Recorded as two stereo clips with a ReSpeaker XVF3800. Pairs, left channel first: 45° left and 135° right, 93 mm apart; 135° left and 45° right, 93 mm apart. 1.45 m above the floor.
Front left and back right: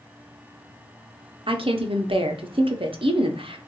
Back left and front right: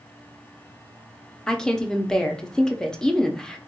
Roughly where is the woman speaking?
Behind right.